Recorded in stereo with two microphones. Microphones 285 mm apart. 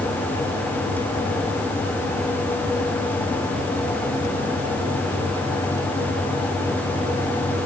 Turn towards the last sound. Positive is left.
No sound to turn to.